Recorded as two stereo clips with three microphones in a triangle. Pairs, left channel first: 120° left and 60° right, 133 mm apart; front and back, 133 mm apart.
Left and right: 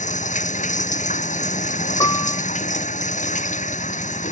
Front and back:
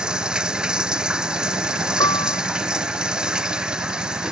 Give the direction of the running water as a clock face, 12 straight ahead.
9 o'clock.